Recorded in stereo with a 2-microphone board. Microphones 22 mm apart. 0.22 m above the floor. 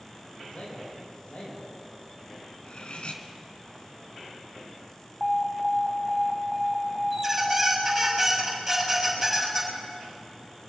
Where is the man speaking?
75° left (ahead or behind), 7 m.